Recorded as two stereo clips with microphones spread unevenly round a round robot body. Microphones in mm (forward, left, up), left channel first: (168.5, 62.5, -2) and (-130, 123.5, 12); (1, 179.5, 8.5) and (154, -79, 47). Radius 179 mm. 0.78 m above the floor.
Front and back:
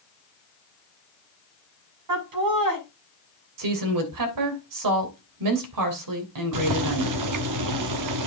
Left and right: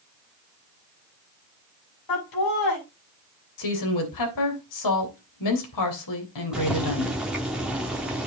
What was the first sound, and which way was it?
Laughter, 150° left.